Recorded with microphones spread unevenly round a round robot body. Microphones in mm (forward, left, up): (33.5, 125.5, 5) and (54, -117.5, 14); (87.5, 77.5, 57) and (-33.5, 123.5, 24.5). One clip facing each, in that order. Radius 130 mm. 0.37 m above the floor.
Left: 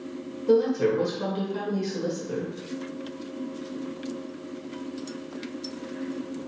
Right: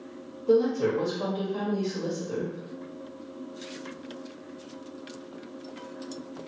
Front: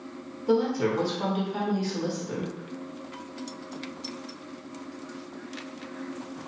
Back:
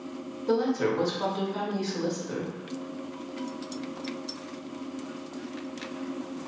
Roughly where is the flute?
I don't hear a flute.